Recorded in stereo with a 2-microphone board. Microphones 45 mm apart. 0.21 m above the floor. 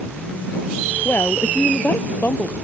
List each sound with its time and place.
1.1 s a woman speaking: 50° left (ahead or behind)